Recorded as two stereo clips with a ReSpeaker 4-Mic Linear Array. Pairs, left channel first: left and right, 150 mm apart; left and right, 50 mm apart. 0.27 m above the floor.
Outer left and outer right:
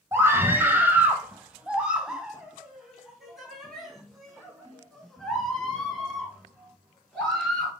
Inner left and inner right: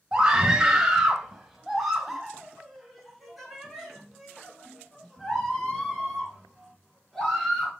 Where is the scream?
15° right (ahead or behind), 1.2 m; by 7.7 s 5° left (ahead or behind), 4.5 m.